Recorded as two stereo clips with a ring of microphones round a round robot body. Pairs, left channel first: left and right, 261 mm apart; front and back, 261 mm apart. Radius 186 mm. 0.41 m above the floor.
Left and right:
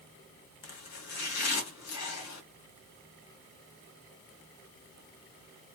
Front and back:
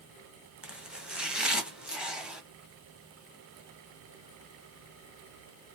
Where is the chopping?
95° left, 1.2 m.